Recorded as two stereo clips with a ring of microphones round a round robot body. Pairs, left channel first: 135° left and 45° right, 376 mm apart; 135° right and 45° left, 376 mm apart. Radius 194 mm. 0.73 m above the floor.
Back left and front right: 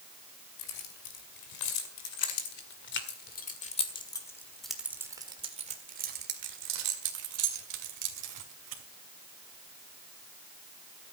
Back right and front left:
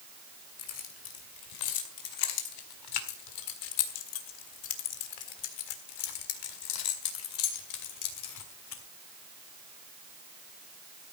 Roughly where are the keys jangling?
Behind.